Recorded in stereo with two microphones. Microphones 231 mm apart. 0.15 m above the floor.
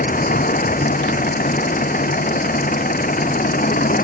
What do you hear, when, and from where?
0.0 s an engine running: 40° left (ahead or behind)